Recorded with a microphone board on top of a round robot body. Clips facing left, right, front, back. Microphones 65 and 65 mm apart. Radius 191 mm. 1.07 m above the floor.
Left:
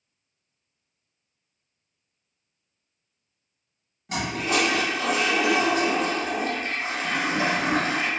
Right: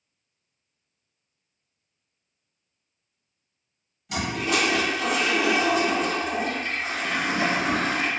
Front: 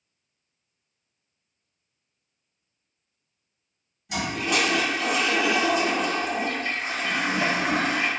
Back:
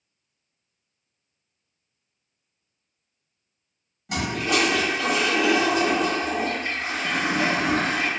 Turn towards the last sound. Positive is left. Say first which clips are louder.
# even, back 2 dB
turn(degrees=140)